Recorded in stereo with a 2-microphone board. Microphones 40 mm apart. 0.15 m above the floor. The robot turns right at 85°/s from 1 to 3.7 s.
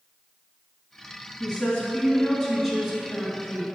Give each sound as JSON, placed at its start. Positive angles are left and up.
{"t": 1.4, "sound": "a woman speaking", "side_deg": 20, "distance_m": 1.7}